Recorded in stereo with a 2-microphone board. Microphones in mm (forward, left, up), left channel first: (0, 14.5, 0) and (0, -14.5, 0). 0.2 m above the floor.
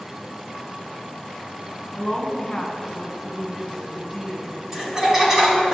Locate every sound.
1.9 s a woman speaking: 10° left (ahead or behind), 1.6 m
4.7 s laughter: 25° right (ahead or behind), 1.2 m